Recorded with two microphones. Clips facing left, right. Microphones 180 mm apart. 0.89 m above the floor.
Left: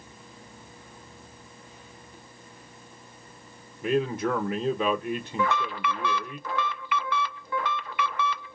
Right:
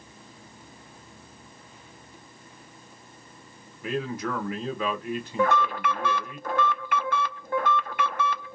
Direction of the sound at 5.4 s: 50° right (ahead or behind).